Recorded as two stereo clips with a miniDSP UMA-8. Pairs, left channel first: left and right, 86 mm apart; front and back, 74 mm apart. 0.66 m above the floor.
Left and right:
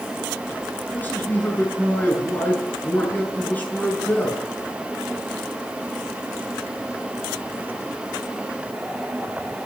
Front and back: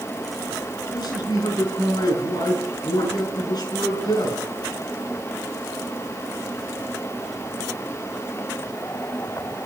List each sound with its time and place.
0.9 s a man speaking: 20° left, 7.5 m